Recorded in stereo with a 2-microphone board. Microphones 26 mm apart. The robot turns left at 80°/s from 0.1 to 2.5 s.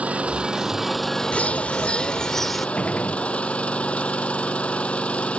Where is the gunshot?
55° left (ahead or behind).